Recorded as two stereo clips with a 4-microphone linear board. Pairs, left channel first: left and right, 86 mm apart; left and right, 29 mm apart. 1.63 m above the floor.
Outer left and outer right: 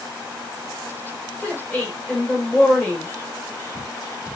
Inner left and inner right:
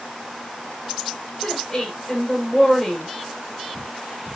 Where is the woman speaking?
25° left (ahead or behind), 1.9 m.